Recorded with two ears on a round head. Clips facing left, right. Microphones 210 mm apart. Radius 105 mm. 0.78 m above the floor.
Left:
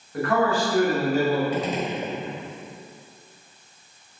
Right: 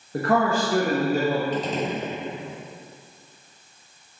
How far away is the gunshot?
About 0.7 m.